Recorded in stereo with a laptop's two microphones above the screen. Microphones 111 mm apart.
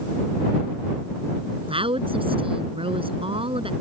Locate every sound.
1.7 s a woman speaking: 55° right (ahead or behind)